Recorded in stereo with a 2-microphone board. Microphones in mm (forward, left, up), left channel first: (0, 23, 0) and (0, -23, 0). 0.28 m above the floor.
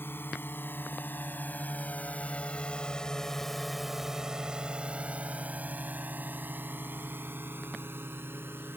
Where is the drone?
55° left (ahead or behind); by 8.8 s 60° right (ahead or behind).